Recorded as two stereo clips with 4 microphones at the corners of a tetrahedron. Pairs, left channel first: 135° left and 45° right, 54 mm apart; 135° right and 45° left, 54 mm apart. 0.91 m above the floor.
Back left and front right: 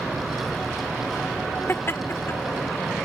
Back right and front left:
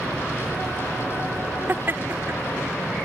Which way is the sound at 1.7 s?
95° left.